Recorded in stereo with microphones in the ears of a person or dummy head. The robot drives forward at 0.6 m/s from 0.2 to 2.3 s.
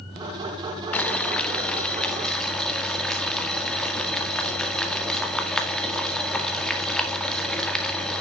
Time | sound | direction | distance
0.9 | boiling | 5° left (ahead or behind) | 0.9 m